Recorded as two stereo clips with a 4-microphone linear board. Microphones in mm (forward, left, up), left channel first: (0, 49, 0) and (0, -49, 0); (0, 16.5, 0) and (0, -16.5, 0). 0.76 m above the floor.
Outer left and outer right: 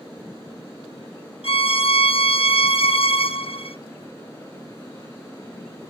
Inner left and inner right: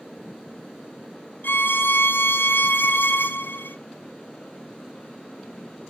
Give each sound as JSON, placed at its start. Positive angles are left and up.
{"t": 1.4, "sound": "a violin", "side_deg": 70, "distance_m": 0.6}